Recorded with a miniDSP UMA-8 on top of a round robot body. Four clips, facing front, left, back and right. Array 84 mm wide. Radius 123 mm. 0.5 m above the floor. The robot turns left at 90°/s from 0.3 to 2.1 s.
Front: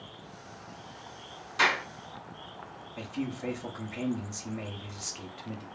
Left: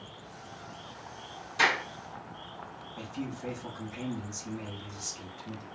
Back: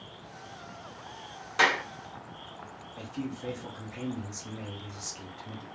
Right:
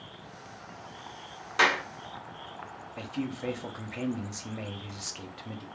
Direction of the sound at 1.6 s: 120° right.